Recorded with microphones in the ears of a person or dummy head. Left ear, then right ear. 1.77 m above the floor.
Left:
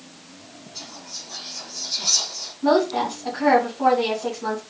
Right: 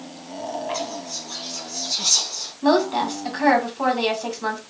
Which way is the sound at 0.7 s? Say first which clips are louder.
Right 6 dB; 85° right.